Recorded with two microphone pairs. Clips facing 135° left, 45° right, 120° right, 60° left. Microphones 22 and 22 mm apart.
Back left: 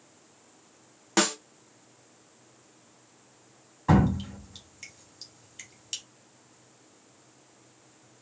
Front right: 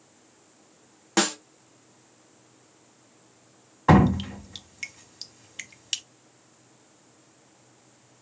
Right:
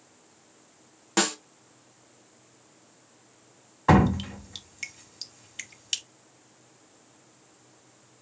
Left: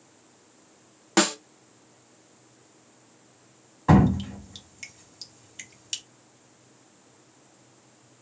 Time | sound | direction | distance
1.2 | a snare drum | 40° left | 0.6 m
3.9 | dripping | 70° right | 0.5 m